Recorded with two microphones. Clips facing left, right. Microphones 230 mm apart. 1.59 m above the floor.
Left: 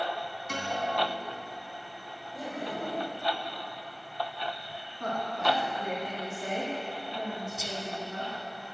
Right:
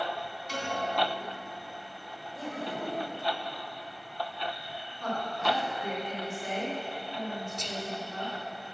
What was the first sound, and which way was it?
A piano, 55° left (ahead or behind).